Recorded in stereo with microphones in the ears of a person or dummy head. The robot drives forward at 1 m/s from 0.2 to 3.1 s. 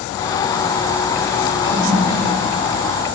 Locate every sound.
1.6 s a toilet flushing: 25° right (ahead or behind), 1.0 m; by 2.4 s 15° right (ahead or behind), 1.7 m